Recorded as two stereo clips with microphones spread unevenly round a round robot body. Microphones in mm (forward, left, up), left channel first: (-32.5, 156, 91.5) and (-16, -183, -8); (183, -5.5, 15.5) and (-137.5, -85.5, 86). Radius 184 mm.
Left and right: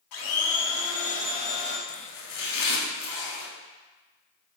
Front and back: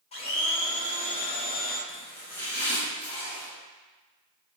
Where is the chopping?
100° left, 0.7 m.